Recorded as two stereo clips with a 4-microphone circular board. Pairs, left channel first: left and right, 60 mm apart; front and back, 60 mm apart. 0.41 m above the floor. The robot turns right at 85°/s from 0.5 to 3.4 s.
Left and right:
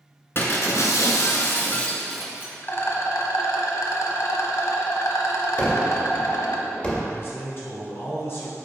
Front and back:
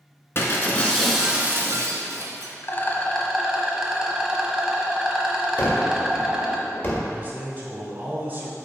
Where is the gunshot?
35° left, 1.5 m.